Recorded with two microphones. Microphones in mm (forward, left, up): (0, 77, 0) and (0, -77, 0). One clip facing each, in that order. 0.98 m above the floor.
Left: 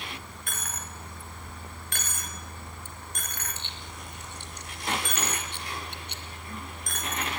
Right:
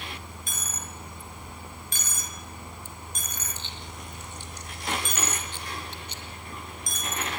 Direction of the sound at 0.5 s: 65° left (ahead or behind).